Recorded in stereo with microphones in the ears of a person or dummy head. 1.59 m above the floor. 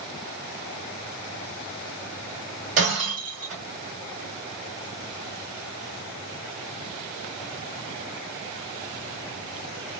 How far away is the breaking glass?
About 2.5 m.